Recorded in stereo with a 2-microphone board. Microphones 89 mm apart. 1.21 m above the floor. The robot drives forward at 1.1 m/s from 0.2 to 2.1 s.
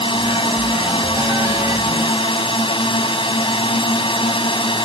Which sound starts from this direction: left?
A drone, at 0.0 s.